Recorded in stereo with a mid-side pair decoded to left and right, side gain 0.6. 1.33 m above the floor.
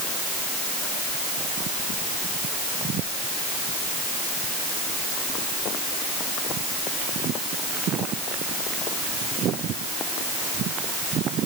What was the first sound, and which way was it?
Only background noise.